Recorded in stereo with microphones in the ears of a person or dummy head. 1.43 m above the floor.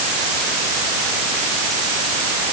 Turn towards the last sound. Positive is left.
No sound to turn to.